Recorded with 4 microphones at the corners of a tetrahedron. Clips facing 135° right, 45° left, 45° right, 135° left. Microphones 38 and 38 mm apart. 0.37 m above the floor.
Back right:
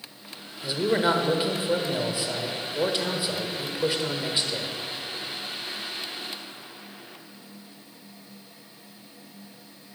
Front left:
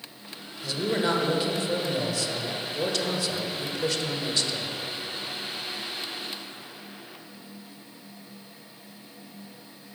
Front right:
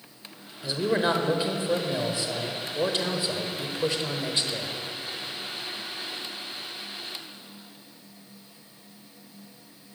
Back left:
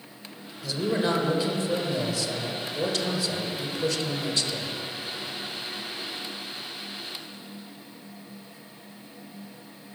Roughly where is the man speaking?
Right.